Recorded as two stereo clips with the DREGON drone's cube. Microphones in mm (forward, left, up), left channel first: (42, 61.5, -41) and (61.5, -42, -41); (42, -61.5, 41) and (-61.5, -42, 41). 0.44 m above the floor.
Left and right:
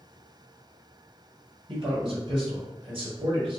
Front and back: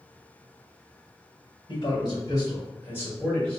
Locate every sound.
1.7 s a man speaking: 50° right, 1.7 m; by 3.6 s 90° right, 1.5 m